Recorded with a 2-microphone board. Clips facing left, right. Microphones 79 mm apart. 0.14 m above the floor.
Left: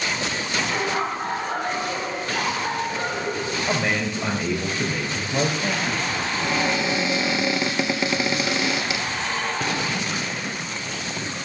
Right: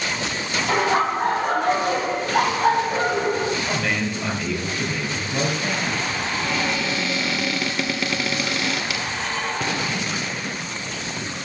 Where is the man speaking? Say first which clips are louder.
Even; 25° left (ahead or behind), 5 m.